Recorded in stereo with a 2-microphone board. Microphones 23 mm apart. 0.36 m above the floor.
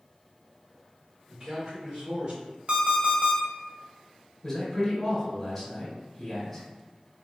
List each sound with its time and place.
1.3 s a man speaking: 30° right (ahead or behind), 1.8 m; by 2.4 s 45° right (ahead or behind), 1.9 m
2.7 s an alarm clock: 55° right (ahead or behind), 0.9 m
4.4 s a man speaking: 10° left (ahead or behind), 1.1 m